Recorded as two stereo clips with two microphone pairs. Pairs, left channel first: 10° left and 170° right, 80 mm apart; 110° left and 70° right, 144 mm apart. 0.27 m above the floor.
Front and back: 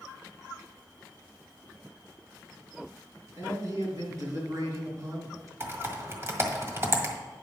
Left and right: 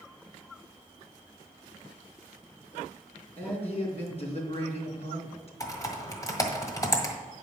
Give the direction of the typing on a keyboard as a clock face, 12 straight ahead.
7 o'clock.